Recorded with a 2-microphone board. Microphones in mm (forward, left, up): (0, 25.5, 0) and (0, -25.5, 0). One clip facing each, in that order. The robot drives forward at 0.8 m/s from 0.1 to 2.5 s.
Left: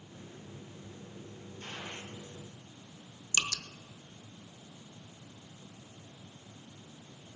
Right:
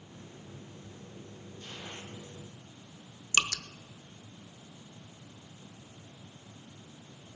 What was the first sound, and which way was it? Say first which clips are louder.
A gunshot: left 2 dB; 50° left (ahead or behind).